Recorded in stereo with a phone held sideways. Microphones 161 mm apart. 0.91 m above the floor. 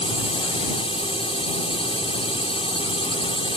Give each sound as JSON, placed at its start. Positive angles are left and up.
{"t": 0.0, "sound": "a drone", "side_deg": 35}